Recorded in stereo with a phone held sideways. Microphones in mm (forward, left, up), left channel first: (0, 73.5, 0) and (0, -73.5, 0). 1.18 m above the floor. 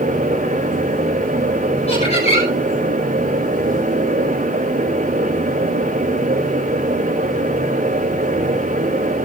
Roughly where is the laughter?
Left.